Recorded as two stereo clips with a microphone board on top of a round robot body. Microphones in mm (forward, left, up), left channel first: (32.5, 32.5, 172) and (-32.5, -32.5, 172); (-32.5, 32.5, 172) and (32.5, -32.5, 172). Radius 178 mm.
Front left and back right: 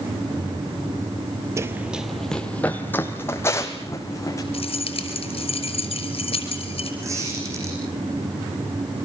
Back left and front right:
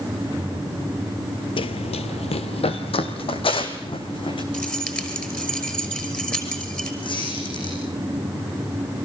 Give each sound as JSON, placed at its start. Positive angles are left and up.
{"t": 1.6, "sound": "running footsteps", "azimuth_deg": 165, "distance_m": 0.7}
{"t": 4.5, "sound": "keys jangling", "azimuth_deg": 55, "distance_m": 5.5}
{"t": 7.0, "sound": "a squeak", "azimuth_deg": 165, "distance_m": 9.0}